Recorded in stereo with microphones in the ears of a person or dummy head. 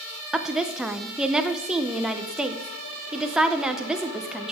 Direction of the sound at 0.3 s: 5° right (ahead or behind).